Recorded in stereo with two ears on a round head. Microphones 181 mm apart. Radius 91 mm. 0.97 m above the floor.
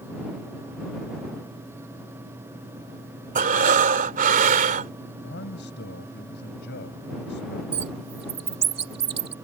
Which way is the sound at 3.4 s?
45° right (ahead or behind).